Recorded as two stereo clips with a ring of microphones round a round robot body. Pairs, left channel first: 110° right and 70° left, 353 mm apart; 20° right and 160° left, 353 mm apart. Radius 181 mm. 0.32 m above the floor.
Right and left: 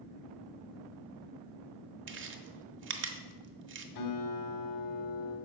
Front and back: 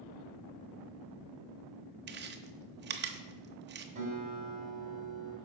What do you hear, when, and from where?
2.1 s chewing: 110° left, 0.9 m
4.0 s a guitar: 135° right, 3 m